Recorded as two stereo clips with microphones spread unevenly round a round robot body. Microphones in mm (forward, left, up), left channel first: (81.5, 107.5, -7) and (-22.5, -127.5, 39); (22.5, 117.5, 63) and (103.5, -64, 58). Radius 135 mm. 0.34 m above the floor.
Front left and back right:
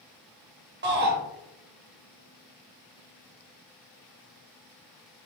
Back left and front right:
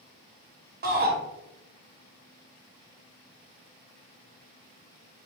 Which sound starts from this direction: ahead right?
A shout, at 0.8 s.